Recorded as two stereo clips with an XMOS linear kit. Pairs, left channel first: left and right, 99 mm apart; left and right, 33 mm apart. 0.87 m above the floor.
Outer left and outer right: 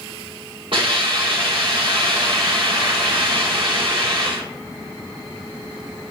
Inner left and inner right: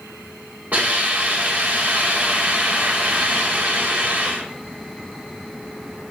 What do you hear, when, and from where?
0.7 s a hiss: 65° right (ahead or behind), 2.5 m